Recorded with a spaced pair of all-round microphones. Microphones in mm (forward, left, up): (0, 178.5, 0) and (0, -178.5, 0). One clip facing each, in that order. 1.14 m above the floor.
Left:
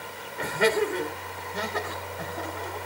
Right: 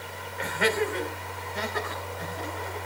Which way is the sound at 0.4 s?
50° left (ahead or behind).